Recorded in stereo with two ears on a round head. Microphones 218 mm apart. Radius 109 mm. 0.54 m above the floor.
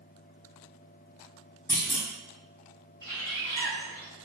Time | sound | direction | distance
1.7 | a clunk | 10° left (ahead or behind) | 1.4 m
3.0 | a bird | 15° left (ahead or behind) | 0.9 m